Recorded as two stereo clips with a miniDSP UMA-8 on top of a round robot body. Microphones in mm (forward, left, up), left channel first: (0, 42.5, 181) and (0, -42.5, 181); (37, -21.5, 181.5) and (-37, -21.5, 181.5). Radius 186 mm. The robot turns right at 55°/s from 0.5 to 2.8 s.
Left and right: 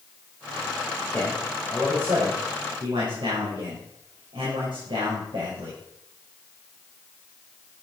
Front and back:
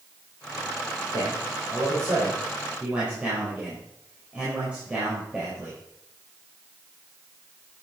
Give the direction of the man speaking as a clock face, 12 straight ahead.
7 o'clock.